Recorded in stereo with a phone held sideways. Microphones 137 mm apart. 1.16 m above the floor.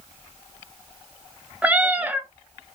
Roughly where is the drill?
No drill in this recording.